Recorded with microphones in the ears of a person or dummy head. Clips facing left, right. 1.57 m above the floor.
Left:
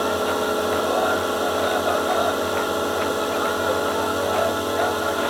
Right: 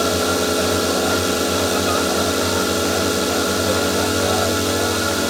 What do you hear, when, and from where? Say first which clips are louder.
0.0 s a drone: right 3 dB; 30° right (ahead or behind)